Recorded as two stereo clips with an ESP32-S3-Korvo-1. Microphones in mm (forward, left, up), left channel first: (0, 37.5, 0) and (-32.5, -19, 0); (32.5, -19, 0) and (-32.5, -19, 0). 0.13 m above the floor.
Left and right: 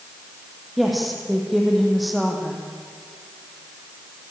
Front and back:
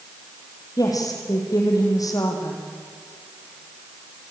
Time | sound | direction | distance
0.8 | a woman speaking | 30° right | 5.5 m